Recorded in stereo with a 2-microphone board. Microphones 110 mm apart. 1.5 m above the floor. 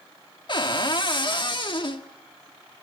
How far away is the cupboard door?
About 1.5 m.